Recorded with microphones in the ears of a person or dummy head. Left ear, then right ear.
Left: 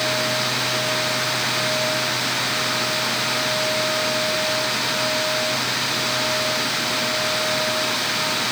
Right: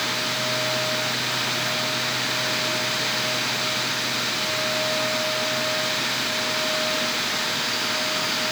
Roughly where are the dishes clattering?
I don't hear dishes clattering.